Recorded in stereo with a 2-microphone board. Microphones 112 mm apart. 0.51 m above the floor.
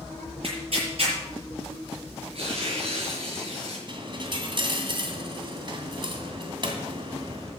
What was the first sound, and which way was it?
Tearing paper, 55° right (ahead or behind).